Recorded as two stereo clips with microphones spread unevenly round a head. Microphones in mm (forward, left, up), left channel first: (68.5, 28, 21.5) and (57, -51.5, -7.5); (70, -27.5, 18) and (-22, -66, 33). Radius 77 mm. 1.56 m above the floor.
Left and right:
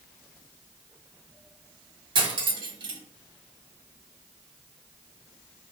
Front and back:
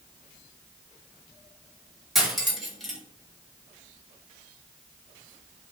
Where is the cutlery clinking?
70° right, 1.3 m.